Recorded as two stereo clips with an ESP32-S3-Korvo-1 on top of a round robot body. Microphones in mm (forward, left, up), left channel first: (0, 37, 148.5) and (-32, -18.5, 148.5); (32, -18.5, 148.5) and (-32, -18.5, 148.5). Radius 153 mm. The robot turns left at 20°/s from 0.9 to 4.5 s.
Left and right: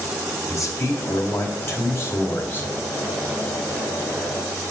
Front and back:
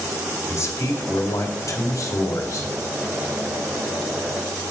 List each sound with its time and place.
0.5 s a man speaking: 35° left, 2.5 m; by 2.7 s straight ahead, 2.5 m